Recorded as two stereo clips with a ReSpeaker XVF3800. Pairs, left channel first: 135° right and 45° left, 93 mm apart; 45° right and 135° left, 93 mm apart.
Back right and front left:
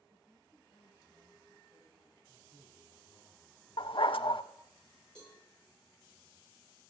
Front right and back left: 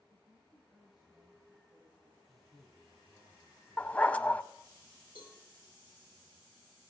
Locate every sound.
0.1 s a woman speaking: 135° left, 3.5 m; by 2.2 s 165° right, 3 m
2.3 s a man speaking: 160° right, 5 m
3.8 s a dog barking: 120° right, 0.6 m
5.2 s a cowbell: 145° left, 7.5 m